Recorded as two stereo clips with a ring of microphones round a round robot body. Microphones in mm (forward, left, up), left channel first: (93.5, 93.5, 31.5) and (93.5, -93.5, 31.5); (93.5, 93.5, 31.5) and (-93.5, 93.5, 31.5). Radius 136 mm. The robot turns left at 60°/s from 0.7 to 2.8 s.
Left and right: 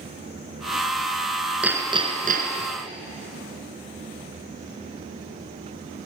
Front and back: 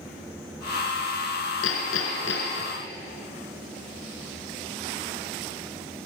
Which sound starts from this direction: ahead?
Hammering, at 1.6 s.